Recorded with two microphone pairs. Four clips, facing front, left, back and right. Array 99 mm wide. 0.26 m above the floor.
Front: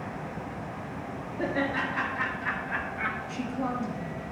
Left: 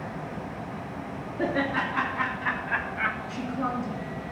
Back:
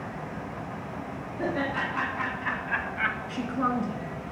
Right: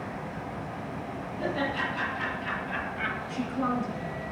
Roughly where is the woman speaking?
Behind.